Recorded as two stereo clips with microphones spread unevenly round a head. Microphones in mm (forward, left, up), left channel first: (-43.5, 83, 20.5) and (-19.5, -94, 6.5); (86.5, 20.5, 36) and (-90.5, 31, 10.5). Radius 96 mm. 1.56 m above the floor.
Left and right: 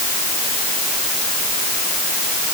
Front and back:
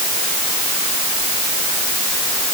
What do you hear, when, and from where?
Only background noise.